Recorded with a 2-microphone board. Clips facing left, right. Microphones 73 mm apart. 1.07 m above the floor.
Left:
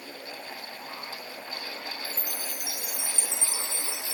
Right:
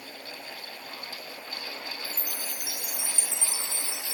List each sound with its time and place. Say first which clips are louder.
2.0 s a chime: left 1 dB; 15° left (ahead or behind), 3 m